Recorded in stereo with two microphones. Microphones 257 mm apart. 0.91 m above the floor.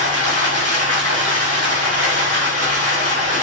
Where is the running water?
70° left (ahead or behind), 1.3 m.